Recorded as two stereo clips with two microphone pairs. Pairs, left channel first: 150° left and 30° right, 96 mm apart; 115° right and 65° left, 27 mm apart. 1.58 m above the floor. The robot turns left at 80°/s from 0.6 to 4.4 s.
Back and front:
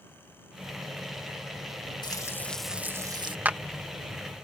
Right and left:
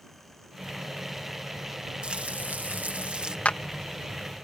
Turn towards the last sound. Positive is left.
turn(degrees=-175)